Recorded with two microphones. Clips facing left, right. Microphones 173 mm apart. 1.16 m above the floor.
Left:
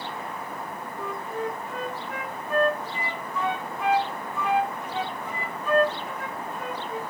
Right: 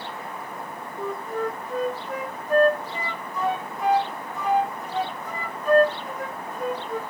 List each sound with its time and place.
1.0 s a flute: 40° right (ahead or behind), 0.9 m